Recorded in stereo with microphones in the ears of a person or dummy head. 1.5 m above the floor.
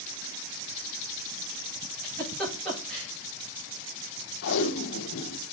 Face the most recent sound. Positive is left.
turn(degrees=70)  # may be behind; listen again after turning